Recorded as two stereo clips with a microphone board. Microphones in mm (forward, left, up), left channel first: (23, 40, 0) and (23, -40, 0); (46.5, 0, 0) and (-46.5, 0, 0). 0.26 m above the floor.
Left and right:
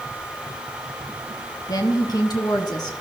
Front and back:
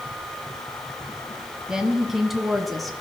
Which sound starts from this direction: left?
A woman speaking, at 1.7 s.